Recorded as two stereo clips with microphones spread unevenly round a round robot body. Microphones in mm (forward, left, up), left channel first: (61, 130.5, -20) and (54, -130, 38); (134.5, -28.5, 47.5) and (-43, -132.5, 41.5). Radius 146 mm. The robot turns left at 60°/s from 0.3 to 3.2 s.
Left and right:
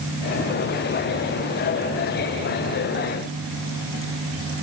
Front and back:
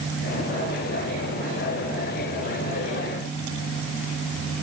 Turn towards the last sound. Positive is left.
No sound to turn to.